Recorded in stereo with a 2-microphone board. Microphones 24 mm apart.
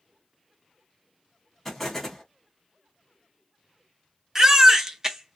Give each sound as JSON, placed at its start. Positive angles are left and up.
{"t": 1.6, "sound": "an explosion", "side_deg": 10, "distance_m": 1.4}
{"t": 4.3, "sound": "a baby crying", "side_deg": -20, "distance_m": 0.6}